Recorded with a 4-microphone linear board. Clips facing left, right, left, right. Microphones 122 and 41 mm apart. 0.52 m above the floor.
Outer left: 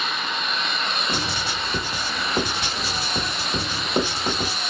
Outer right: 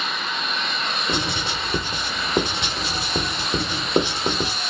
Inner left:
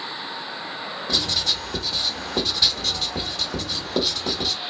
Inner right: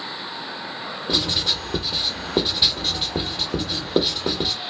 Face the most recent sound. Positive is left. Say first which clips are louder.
# outer right 2 dB, inner right 2 dB
turn(degrees=-20)  # may be behind; listen again after turning